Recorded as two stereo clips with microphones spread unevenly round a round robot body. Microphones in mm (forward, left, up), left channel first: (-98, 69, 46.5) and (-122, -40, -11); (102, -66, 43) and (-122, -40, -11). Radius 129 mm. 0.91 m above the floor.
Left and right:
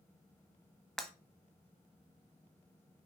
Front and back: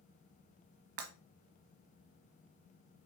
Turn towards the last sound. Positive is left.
turn(degrees=135)